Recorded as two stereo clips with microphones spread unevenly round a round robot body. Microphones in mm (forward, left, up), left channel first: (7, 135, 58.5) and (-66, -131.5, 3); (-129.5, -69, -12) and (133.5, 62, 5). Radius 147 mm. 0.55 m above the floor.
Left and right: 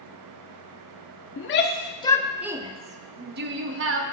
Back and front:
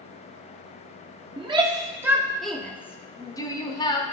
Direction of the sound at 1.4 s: 90° left.